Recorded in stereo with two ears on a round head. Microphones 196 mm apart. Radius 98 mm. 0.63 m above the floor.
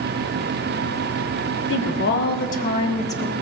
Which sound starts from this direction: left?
A woman speaking, at 1.7 s.